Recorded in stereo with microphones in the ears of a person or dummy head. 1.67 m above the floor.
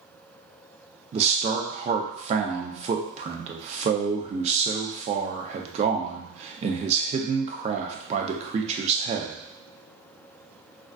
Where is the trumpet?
No trumpet in this recording.